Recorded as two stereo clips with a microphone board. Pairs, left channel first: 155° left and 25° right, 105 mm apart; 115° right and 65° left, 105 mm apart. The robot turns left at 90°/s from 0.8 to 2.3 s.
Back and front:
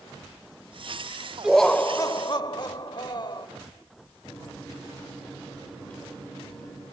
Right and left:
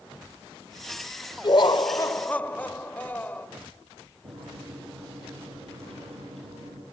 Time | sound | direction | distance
1.4 | laughter | 105° right | 1.2 m
4.2 | a microwave | 80° left | 8.5 m